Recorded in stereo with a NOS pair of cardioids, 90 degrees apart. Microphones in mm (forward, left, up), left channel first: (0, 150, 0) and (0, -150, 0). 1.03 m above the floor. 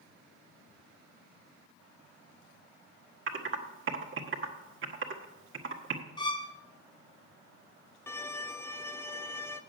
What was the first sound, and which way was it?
Typing on a keyboard, 40° right.